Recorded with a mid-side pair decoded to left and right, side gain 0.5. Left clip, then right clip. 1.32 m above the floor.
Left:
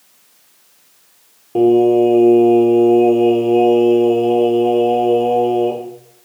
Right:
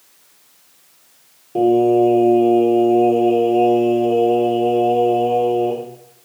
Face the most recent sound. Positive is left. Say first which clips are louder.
# left 2 dB
turn(degrees=30)